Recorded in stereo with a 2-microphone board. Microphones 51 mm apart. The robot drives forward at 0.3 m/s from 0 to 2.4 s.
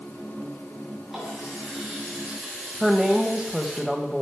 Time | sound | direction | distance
1.1 | a running tap | 5° right (ahead or behind) | 7 m
2.8 | a woman speaking | centre (ahead or behind) | 1.2 m